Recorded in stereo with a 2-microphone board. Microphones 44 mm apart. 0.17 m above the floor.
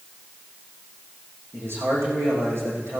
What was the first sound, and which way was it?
A man speaking, 70° right (ahead or behind).